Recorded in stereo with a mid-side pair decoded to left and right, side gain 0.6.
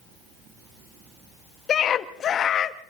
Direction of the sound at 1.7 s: 45° left.